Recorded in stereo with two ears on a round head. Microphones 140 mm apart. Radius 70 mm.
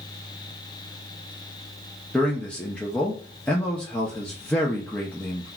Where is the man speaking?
10° left (ahead or behind), 0.6 m.